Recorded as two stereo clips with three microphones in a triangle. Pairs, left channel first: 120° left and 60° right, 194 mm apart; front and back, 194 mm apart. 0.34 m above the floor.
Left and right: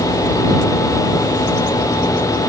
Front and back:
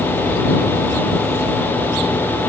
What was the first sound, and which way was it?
Only background noise.